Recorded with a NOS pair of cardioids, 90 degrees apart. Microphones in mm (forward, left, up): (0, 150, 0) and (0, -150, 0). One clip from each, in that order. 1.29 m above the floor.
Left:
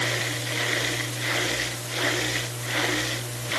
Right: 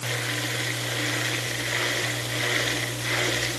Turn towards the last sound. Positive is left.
No sound to turn to.